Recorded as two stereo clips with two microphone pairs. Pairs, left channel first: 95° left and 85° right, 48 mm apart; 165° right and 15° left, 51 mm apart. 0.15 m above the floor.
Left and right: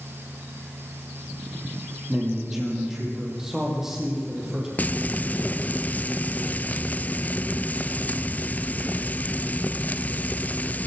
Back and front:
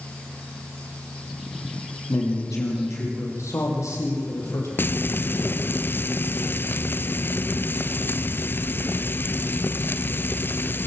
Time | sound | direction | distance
2.1 | a man speaking | 165° right | 6 m
4.8 | frying | 155° left | 0.5 m